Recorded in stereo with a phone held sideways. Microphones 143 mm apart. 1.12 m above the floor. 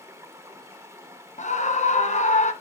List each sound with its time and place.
0.0 s running water: 20° right (ahead or behind), 1.0 m
1.4 s a scream: 55° left (ahead or behind), 0.9 m